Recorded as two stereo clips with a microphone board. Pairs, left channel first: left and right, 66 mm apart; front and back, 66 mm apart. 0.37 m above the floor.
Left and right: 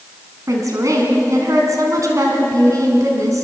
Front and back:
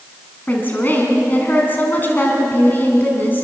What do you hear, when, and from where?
0.5 s a woman speaking: 60° right, 3.5 m